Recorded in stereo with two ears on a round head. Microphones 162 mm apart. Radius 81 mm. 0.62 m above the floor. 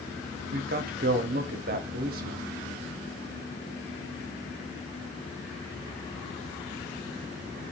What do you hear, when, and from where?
0.5 s a man speaking: 55° right (ahead or behind), 0.9 m